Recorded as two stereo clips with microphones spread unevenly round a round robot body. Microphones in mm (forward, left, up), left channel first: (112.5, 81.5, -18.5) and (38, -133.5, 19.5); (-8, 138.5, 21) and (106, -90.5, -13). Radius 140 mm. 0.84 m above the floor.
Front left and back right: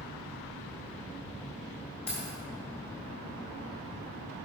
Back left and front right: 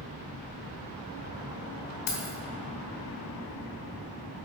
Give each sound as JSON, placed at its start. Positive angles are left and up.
{"t": 2.1, "sound": "keys jangling", "azimuth_deg": 145, "distance_m": 2.0}